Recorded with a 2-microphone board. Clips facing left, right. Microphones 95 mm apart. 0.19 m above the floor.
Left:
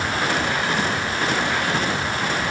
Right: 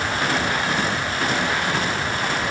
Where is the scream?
I don't hear a scream.